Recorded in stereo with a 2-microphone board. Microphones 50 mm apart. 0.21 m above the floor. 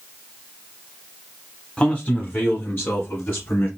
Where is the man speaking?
20° left (ahead or behind), 1.0 m; by 3.7 s 45° left (ahead or behind), 2 m.